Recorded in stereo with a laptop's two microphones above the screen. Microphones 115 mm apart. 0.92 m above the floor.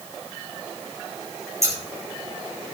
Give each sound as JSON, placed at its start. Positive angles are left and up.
{"t": 1.6, "sound": "scissors", "side_deg": -25, "distance_m": 4.5}